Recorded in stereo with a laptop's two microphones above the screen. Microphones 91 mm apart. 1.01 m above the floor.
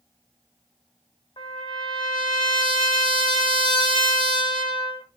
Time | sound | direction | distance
1.4 | a trumpet | 70° left (ahead or behind) | 3 m